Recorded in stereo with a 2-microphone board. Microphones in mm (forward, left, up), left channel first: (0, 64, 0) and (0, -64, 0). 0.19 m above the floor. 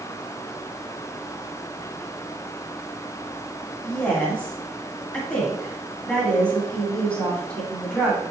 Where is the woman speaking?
10° left (ahead or behind), 1.5 m.